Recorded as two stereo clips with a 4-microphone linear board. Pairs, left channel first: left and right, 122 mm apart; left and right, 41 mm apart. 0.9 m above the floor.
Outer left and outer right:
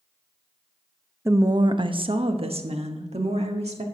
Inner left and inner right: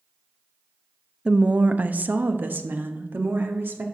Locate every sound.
1.2 s a woman speaking: 20° right (ahead or behind), 0.6 m; by 3.8 s 65° right (ahead or behind), 1.9 m